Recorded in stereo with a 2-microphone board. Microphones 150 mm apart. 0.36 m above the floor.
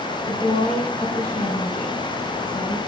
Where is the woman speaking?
55° left (ahead or behind), 4 m.